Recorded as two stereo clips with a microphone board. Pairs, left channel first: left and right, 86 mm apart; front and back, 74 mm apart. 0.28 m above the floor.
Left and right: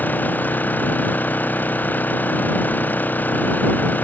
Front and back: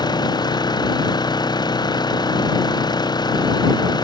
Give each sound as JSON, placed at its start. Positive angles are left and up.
{"t": 0.0, "sound": "an engine running", "azimuth_deg": 20}